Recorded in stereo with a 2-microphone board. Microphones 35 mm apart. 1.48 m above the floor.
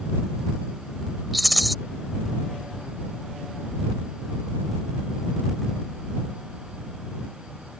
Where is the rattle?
Centre (ahead or behind).